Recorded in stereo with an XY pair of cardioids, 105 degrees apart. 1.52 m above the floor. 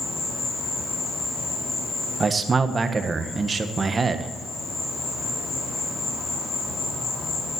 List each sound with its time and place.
0.0 s an insect: 55° left, 5 m
2.2 s a man speaking: 30° right, 1.5 m